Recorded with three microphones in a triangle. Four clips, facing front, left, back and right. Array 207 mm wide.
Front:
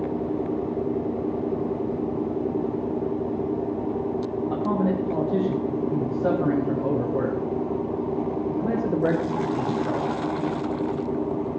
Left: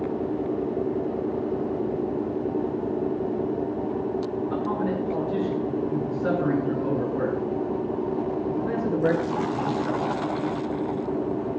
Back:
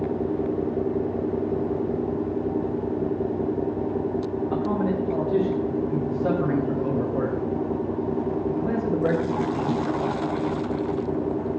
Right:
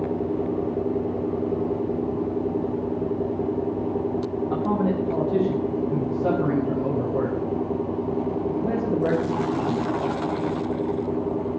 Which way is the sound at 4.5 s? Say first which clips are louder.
Right 5 dB, front 1 dB; 30° right.